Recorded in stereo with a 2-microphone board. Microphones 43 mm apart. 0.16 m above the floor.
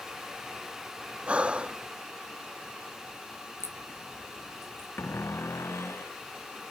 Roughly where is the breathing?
Right.